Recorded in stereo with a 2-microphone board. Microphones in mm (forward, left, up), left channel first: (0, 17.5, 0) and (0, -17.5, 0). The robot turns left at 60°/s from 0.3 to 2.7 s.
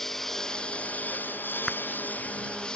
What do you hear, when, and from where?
0.0 s a lawn mower: 170° left; by 2.8 s 25° left
1.7 s a clap: 5° left (ahead or behind); by 1.8 s centre (ahead or behind)